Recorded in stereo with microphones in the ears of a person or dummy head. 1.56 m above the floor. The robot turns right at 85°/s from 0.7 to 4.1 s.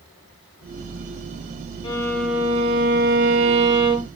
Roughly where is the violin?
Behind left.